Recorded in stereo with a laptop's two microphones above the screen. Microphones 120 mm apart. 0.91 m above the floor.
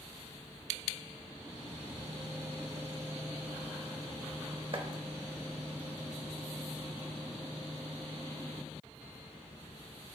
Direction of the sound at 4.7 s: 50° right (ahead or behind).